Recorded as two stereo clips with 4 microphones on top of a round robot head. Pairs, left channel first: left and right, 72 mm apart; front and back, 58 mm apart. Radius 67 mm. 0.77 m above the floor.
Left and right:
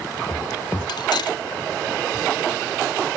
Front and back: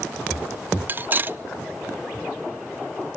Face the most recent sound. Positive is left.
turn(degrees=125)